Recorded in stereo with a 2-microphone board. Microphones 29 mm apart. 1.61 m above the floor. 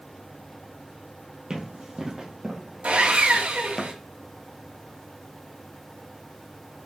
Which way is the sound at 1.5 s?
25° right (ahead or behind).